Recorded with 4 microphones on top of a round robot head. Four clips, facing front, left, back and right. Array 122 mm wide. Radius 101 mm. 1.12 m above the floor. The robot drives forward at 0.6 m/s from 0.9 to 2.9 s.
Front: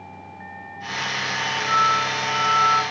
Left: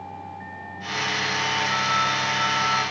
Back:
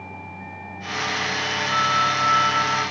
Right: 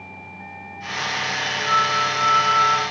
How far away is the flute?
About 3 m.